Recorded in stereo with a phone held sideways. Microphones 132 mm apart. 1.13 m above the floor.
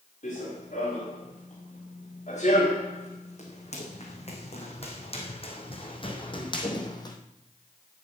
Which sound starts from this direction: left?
Running footsteps, at 0.2 s.